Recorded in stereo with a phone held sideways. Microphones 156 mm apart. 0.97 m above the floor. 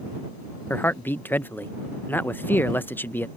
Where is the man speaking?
10° left (ahead or behind).